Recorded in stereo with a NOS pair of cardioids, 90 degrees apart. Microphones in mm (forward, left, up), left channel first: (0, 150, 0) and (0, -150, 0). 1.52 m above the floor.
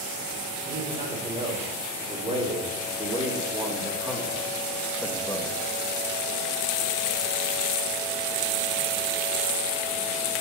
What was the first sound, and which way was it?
A man speaking, 25° right.